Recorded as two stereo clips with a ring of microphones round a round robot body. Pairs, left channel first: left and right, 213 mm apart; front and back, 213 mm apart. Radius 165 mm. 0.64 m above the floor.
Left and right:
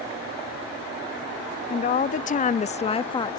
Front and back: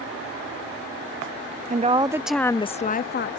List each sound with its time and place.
1.7 s a woman speaking: 135° left; by 3.4 s 20° left